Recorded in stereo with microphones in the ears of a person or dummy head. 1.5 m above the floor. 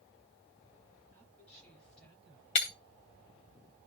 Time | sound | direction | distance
1.1 | a woman speaking | 5° left (ahead or behind) | 8.5 m
2.5 | breaking glass | 30° left (ahead or behind) | 1.2 m